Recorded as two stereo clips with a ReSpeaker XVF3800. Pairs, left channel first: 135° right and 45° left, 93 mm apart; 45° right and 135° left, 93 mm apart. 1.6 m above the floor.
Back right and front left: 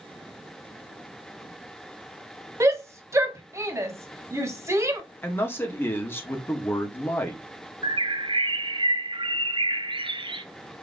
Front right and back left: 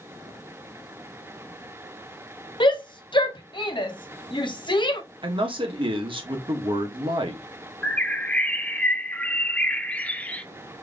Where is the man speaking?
160° left, 1.3 m.